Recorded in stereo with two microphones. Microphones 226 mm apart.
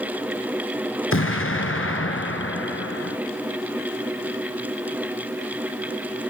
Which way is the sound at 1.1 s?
65° left (ahead or behind).